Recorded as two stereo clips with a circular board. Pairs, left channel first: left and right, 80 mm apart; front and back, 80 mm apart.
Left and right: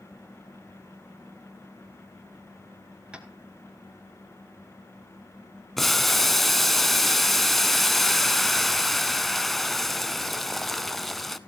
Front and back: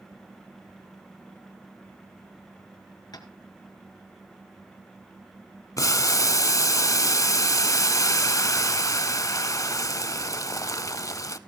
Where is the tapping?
15° right, 2 m.